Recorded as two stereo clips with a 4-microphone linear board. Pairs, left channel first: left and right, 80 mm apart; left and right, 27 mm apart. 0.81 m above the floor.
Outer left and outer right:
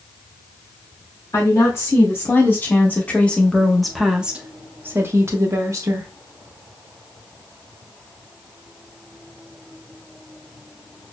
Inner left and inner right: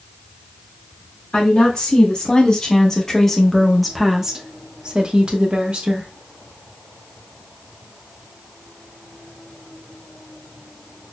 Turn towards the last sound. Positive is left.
turn(degrees=-45)  # may be behind; listen again after turning